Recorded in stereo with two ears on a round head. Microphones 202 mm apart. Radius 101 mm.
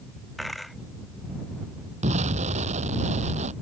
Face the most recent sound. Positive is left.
turn(degrees=-30)  # may be behind; listen again after turning